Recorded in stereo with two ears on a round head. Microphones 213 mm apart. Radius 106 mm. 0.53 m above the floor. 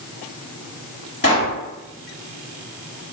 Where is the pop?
35° left (ahead or behind), 1.6 m.